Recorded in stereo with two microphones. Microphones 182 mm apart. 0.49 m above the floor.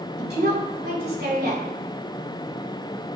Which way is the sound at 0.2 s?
60° right (ahead or behind).